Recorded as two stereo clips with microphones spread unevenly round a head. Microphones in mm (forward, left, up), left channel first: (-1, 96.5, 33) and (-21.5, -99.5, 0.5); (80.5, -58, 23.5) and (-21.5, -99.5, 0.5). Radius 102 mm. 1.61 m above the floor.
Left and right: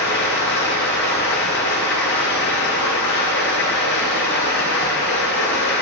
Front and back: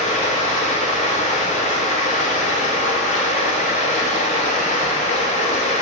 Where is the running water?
50° left, 4.5 m.